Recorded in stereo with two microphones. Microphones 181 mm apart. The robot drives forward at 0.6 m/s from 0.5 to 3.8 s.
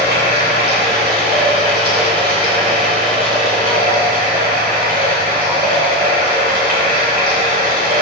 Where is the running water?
70° right (ahead or behind), 5.5 m; by 8.0 s 55° right (ahead or behind), 6.5 m.